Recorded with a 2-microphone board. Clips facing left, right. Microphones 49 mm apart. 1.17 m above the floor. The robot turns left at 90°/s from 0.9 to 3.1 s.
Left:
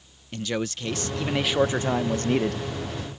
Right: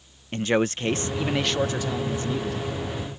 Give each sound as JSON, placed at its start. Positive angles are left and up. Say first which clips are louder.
{"t": 0.3, "sound": "a man speaking", "louder": "right 6 dB", "azimuth_deg": -135}